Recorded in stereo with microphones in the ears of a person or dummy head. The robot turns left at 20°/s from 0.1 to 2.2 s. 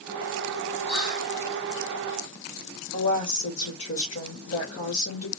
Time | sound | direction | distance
0.9 | whispering | 60° left (ahead or behind) | 2.5 m
2.9 | a woman speaking | 85° left | 1.7 m